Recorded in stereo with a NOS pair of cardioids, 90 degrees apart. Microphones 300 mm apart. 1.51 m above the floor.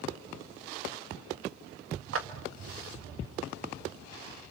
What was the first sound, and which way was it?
A clap, 50° right.